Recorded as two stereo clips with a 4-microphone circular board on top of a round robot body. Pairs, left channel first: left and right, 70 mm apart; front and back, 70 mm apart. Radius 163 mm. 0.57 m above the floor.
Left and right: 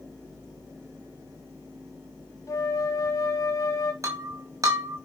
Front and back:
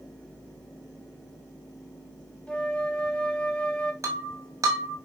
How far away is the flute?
About 1.8 m.